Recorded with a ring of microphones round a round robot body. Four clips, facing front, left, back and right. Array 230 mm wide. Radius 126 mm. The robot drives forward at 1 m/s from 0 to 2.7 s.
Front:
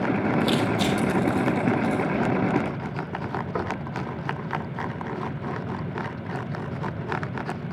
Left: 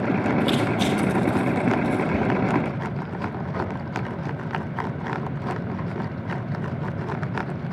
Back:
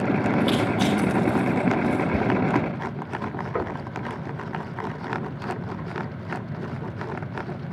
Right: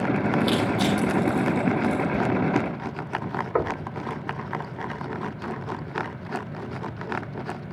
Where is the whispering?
140° left, 1.5 m; by 2.3 s 145° left, 1.6 m.